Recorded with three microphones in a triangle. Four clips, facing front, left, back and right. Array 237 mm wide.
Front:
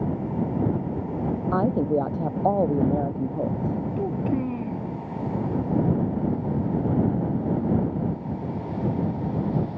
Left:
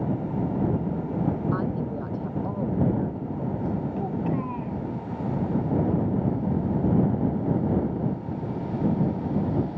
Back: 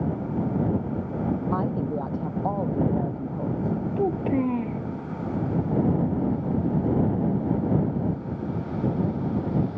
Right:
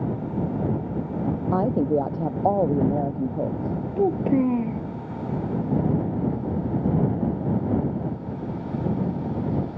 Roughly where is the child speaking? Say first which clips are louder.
Right 7 dB, back 4 dB; right.